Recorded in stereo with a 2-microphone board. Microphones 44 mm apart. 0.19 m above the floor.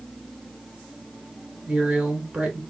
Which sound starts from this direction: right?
A woman speaking, at 1.7 s.